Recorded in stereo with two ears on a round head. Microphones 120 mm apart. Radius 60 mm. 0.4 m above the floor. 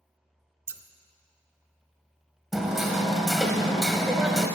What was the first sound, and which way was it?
Scissors, 15° right (ahead or behind).